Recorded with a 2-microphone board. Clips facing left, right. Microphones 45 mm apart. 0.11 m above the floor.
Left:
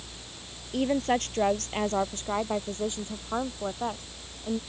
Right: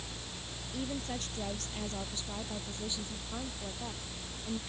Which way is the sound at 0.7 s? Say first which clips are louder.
Left 13 dB; 60° left (ahead or behind).